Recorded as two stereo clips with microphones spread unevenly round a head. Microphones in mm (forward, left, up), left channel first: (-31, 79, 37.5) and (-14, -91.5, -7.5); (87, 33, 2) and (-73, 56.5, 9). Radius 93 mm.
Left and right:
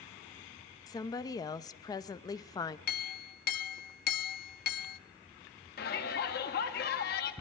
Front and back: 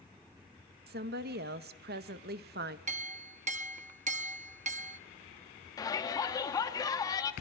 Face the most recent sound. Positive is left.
turn(degrees=55)